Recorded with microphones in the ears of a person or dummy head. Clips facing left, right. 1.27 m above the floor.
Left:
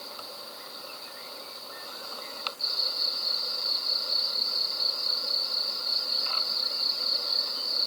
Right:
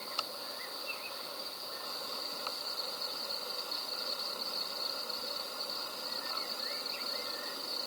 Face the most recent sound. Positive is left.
No sound to turn to.